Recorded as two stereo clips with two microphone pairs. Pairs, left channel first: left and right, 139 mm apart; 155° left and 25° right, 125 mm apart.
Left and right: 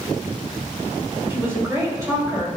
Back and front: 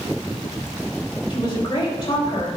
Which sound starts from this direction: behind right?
A woman speaking, at 1.3 s.